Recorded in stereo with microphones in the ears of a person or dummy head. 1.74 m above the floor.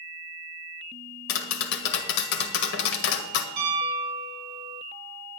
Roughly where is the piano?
Right.